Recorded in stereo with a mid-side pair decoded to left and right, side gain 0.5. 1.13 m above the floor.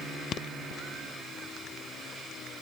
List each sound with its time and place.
Only background noise.